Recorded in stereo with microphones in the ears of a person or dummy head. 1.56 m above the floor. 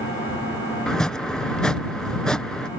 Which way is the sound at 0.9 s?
5° left (ahead or behind).